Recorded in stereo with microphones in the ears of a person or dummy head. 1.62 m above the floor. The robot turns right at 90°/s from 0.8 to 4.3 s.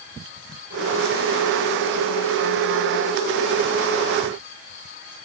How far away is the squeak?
No squeak in this recording.